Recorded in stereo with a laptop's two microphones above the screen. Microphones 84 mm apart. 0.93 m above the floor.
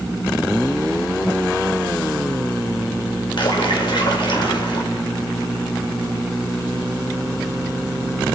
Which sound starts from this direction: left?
A splash, at 3.4 s.